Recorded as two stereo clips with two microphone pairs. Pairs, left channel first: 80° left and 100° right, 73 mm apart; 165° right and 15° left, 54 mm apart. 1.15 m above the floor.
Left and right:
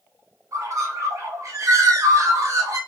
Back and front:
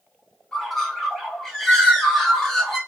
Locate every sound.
0.5 s a bird: 75° right, 0.8 m